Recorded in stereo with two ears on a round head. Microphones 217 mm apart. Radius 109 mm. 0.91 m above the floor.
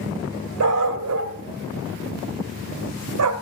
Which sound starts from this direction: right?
A dog barking, at 0.6 s.